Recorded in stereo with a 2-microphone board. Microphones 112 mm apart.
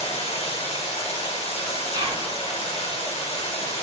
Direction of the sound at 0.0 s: 60° left (ahead or behind).